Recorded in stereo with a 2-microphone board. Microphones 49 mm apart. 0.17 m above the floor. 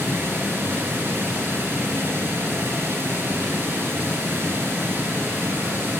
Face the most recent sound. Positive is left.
turn(degrees=-50)  # may be behind; listen again after turning